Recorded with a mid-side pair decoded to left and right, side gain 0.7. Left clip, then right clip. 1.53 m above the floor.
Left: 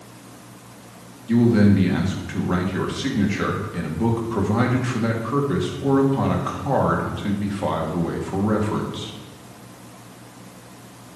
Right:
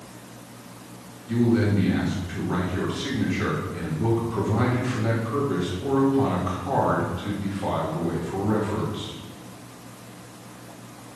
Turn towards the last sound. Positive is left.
turn(degrees=50)